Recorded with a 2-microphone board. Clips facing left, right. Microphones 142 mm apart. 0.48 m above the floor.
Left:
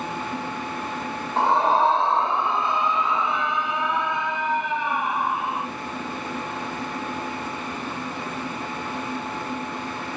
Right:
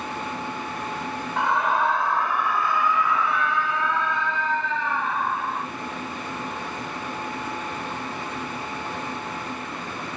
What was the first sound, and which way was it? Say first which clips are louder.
A scream: left 4 dB; 35° left (ahead or behind).